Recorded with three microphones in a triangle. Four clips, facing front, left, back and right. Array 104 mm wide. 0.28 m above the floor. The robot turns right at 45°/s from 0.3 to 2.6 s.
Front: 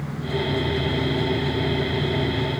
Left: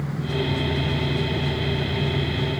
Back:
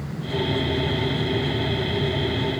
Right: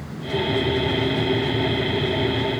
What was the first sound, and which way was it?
Only background noise.